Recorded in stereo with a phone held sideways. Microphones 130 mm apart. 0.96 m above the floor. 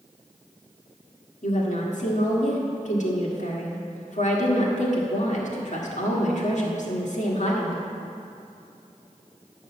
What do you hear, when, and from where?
1.4 s a woman speaking: 60° left (ahead or behind), 1.6 m